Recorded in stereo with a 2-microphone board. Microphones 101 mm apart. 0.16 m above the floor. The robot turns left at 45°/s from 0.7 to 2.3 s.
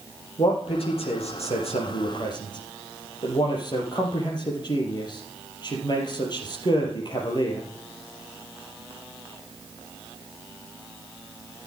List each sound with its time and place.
0.4 s a man speaking: 60° left (ahead or behind), 4 m; by 7.7 s 45° left (ahead or behind), 4 m